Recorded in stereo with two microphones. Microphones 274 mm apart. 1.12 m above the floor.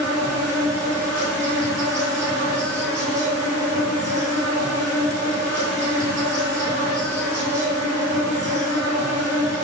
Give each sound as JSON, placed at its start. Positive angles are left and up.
{"t": 0.0, "sound": "an insect", "side_deg": 5, "distance_m": 3.0}